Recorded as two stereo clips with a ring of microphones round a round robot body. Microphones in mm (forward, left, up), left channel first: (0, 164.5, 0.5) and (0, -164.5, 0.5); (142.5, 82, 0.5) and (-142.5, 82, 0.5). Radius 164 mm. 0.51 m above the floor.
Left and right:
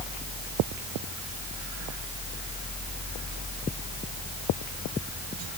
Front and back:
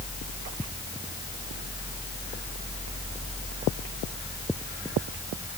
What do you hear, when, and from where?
Only background noise.